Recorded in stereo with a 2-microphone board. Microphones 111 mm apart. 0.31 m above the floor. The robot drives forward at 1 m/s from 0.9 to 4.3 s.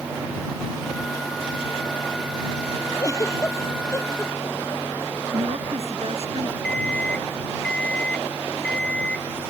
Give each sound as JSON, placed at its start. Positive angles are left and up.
{"t": 3.0, "sound": "a giggle", "side_deg": 30}
{"t": 5.3, "sound": "a woman speaking", "side_deg": -60}
{"t": 6.6, "sound": "an alarm clock", "side_deg": 5}